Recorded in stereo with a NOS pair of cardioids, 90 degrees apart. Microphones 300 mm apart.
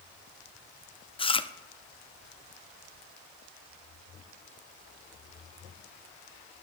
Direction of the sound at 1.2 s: 15° left.